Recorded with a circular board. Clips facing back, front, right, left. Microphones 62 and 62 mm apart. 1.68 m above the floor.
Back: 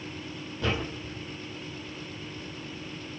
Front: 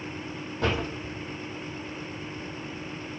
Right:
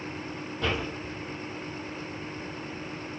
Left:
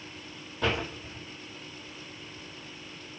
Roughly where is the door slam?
Ahead.